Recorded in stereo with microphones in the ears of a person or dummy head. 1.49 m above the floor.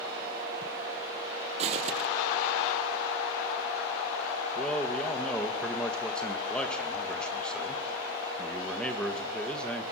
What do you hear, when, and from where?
1.6 s footsteps: 40° right (ahead or behind), 3 m
4.5 s a man speaking: 10° left (ahead or behind), 2.5 m